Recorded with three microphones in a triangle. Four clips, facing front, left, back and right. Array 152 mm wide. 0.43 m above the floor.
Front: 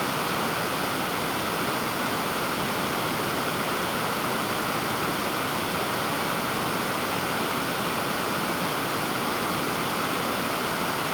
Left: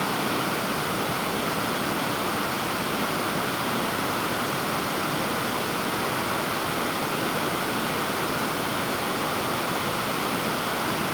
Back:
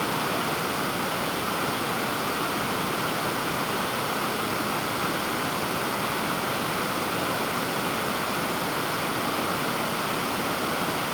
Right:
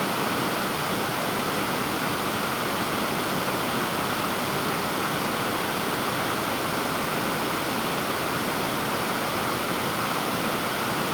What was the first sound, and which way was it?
Only background noise.